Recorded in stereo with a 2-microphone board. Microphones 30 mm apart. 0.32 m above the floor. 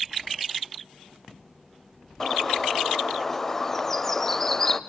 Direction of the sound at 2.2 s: 15° left (ahead or behind).